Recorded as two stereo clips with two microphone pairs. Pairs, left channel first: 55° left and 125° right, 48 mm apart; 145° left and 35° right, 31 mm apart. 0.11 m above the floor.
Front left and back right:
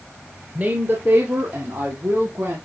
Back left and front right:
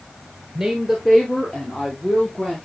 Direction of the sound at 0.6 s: 110° right.